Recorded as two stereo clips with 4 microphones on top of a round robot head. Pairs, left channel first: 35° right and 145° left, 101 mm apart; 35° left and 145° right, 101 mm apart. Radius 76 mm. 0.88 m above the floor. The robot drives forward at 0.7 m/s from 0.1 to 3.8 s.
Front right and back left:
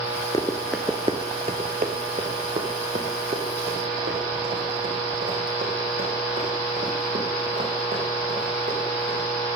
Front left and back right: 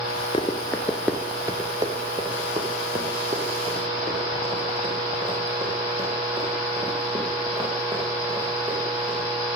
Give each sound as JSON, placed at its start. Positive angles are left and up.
{"t": 0.3, "sound": "running footsteps", "azimuth_deg": 10, "distance_m": 1.0}